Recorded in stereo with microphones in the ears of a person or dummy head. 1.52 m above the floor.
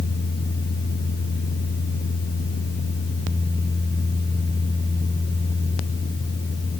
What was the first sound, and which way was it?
Only background noise.